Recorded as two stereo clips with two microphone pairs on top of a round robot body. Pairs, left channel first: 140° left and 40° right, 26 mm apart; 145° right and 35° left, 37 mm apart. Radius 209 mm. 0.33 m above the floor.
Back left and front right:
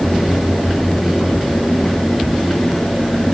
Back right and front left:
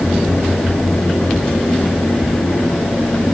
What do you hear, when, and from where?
Only background noise.